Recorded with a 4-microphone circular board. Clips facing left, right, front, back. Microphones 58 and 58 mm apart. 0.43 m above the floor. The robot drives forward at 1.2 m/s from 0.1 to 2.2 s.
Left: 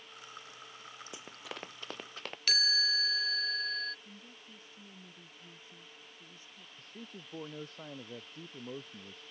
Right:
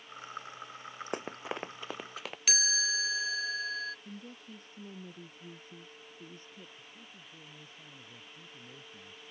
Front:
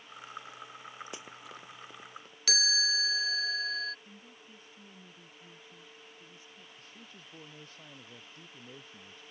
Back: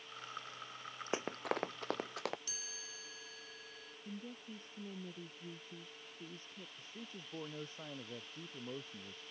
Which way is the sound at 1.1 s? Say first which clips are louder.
Right 10 dB, back 8 dB; 120° right.